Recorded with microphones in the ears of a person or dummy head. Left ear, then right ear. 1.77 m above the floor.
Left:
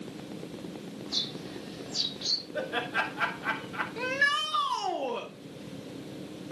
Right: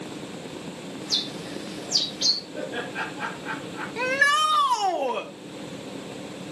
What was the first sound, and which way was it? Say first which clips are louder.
A bird: right 5 dB; 45° right (ahead or behind).